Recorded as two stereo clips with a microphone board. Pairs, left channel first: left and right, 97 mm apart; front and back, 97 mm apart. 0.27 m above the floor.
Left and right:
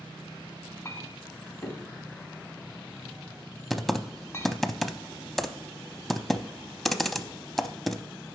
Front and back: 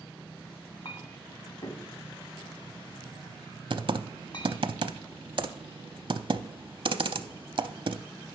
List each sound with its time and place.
0.8 s a clink: 30° left, 0.9 m
3.7 s typing on a keyboard: straight behind, 0.5 m